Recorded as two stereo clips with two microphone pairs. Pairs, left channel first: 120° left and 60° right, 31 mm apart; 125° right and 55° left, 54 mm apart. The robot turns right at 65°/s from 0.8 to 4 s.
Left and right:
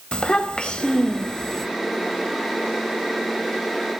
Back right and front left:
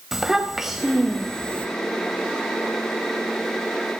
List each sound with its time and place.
0.1 s a child speaking: 135° left, 0.8 m; by 1.7 s 170° right, 0.8 m